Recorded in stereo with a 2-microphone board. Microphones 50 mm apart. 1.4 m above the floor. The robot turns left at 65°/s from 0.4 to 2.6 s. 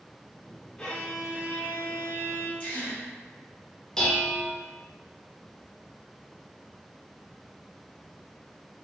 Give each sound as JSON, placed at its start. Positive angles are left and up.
{"t": 0.8, "sound": "a violin", "azimuth_deg": 20, "distance_m": 0.7}
{"t": 2.6, "sound": "a gasp", "side_deg": 25, "distance_m": 1.1}
{"t": 4.0, "sound": "dishes clattering", "side_deg": 10, "distance_m": 0.9}